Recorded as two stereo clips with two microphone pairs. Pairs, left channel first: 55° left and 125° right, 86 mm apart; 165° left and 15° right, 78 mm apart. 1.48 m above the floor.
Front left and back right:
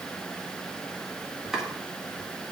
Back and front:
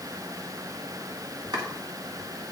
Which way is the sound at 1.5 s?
40° right.